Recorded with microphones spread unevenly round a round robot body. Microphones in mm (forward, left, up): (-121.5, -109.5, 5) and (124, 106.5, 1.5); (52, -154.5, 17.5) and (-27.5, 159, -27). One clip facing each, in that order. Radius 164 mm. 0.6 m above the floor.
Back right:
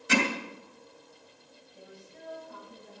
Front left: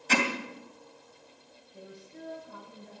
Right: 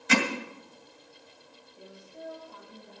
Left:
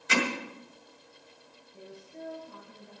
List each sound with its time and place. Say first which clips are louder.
0.1 s hammering: back right 2 dB, right 4 dB; 65° right, 2.5 m
1.7 s a woman speaking: front left 4 dB, left 3 dB; 80° left, 9 m